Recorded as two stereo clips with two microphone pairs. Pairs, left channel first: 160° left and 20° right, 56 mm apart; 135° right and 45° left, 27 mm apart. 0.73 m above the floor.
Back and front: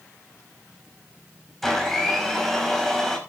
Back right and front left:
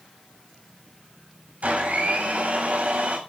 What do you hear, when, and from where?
1.6 s a blender: 70° left, 6 m